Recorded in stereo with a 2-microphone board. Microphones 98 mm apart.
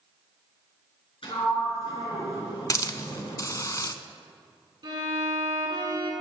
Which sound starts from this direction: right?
A violin, at 4.8 s.